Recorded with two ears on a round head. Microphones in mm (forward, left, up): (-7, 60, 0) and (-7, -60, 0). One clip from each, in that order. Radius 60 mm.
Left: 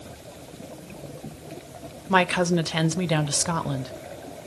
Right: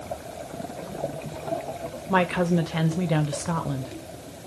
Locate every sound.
2.1 s a woman speaking: 80° left, 0.7 m